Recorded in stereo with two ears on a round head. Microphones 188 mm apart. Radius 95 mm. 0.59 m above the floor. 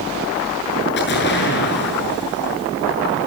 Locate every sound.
1.0 s an explosion: 50° left (ahead or behind), 6.5 m